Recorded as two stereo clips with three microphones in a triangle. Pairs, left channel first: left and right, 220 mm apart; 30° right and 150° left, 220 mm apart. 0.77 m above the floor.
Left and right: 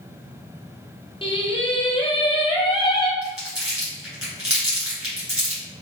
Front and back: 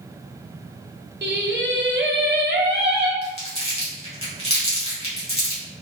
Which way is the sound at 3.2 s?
95° right.